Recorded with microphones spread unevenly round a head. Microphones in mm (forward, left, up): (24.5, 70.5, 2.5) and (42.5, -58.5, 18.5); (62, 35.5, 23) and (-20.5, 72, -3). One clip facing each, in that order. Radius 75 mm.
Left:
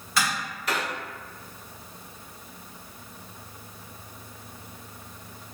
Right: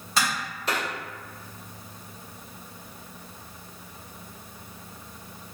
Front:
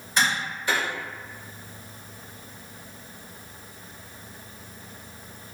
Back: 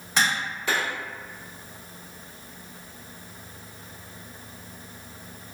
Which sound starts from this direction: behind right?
Tapping, at 0.2 s.